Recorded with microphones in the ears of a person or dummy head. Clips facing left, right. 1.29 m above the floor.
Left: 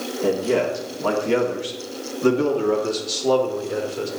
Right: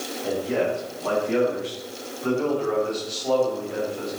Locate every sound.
0.2 s a man speaking: 80° left, 3 m; by 4.1 s 55° left (ahead or behind), 3.5 m